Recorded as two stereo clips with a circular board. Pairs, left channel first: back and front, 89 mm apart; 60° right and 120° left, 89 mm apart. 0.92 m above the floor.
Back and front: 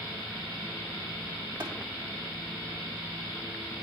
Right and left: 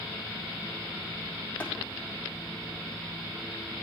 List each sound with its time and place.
1.6 s tapping: 10° left, 1.8 m